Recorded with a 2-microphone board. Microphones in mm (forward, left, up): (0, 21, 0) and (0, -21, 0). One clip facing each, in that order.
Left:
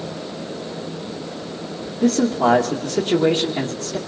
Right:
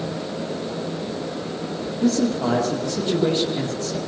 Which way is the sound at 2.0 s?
45° left (ahead or behind).